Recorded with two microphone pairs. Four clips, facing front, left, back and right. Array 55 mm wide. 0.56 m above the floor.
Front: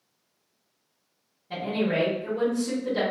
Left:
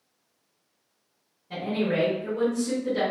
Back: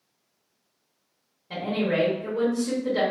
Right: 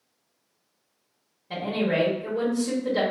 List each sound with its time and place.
1.5 s a woman speaking: 115° right, 1.5 m